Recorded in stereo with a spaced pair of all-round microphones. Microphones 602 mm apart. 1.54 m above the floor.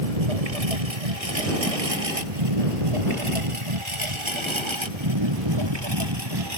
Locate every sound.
0.0 s a lawn mower: 75° right (ahead or behind); by 6.6 s 40° right (ahead or behind)